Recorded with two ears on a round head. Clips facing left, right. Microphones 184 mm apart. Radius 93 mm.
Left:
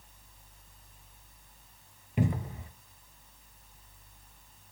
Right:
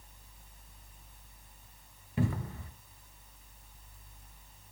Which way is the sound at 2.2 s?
15° left (ahead or behind).